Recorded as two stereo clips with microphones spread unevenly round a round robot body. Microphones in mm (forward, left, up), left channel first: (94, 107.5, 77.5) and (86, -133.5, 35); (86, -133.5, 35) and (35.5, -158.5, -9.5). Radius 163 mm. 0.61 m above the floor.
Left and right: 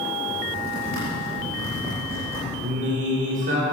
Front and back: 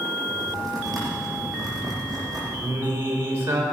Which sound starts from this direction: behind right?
Singing, at 2.6 s.